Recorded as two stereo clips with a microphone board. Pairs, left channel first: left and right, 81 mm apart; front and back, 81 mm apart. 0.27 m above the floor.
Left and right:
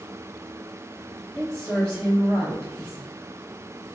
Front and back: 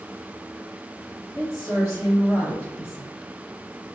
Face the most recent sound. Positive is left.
turn(degrees=20)